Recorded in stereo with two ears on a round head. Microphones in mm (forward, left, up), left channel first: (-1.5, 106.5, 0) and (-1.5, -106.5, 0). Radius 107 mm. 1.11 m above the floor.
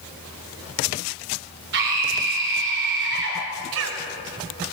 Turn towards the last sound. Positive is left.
turn(degrees=-65)  # may be behind; listen again after turning